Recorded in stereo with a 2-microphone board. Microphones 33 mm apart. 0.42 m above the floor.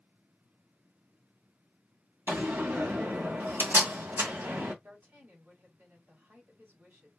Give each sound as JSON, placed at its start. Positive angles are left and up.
{"t": 2.3, "sound": "a door slam", "side_deg": -70, "distance_m": 2.0}
{"t": 4.8, "sound": "a woman speaking", "side_deg": -70, "distance_m": 3.5}